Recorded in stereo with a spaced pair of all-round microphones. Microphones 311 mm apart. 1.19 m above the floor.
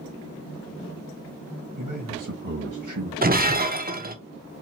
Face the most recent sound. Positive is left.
turn(degrees=-30)  # may be behind; listen again after turning